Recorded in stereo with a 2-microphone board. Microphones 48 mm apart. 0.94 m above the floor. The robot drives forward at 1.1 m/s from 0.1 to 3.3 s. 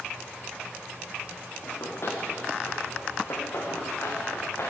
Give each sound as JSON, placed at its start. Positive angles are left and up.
{"t": 1.6, "sound": "running footsteps", "side_deg": 60, "distance_m": 7.5}